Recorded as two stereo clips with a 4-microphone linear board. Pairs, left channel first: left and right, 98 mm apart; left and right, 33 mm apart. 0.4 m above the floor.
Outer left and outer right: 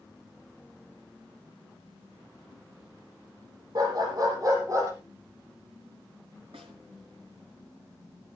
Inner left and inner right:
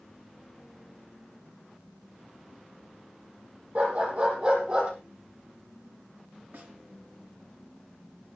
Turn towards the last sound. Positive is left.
turn(degrees=-75)  # may be behind; listen again after turning